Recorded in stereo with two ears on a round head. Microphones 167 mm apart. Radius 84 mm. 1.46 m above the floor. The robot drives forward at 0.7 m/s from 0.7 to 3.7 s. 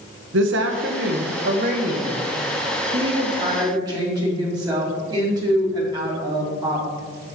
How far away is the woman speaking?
About 1.0 m.